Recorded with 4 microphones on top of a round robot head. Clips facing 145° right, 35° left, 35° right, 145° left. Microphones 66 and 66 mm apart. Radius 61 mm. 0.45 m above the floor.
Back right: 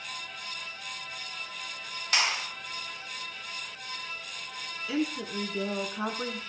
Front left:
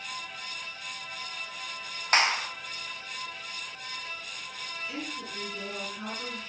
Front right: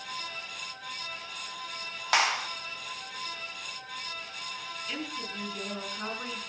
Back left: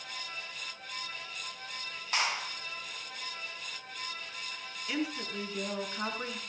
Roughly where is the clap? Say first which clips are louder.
Front left 4 dB, front right 6 dB; ahead.